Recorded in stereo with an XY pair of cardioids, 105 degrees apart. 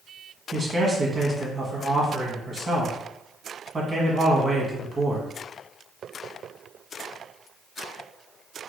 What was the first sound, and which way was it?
A man speaking, 30° right.